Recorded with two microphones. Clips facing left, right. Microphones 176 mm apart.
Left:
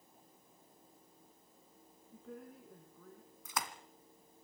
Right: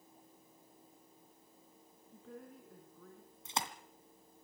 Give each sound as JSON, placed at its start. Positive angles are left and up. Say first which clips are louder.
{"t": 2.1, "sound": "a woman speaking", "louder": "left 1 dB", "side_deg": 0, "distance_m": 3.5}
{"t": 3.5, "sound": "a splash", "louder": "right 1 dB", "side_deg": -25, "distance_m": 1.6}